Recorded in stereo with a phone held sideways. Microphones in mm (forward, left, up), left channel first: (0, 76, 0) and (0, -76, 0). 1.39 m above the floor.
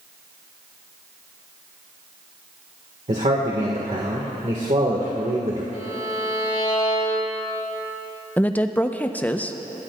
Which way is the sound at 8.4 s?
10° left (ahead or behind).